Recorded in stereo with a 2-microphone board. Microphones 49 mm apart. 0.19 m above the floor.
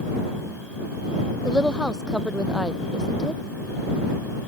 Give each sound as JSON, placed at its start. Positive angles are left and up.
{"t": 1.4, "sound": "a woman speaking", "side_deg": -15}